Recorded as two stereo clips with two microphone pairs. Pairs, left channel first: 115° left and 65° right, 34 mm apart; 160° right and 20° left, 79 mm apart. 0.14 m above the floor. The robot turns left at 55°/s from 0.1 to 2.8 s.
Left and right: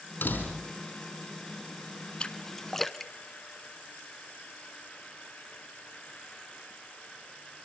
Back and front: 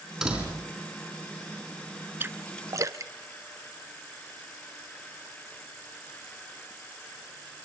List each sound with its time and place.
0.2 s a door slam: 100° left, 4.5 m; by 0.7 s 75° left, 4.5 m
2.2 s a splash: 70° left, 0.9 m; by 4.0 s 35° left, 0.9 m